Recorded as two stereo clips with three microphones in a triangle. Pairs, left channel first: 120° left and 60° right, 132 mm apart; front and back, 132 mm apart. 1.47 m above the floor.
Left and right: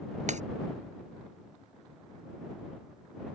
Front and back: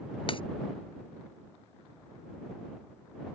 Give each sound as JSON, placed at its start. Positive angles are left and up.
{"t": 0.3, "sound": "breaking glass", "azimuth_deg": -45}